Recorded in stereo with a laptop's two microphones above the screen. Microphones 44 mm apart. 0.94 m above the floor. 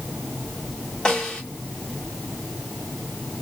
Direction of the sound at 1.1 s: 20° left (ahead or behind).